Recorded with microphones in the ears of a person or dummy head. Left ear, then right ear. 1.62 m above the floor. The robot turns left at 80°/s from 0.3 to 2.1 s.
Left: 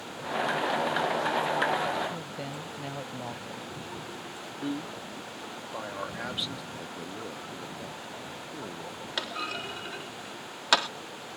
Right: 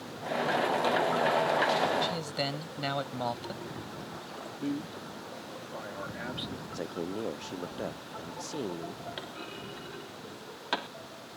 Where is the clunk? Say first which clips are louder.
Left 8 dB; 50° left (ahead or behind).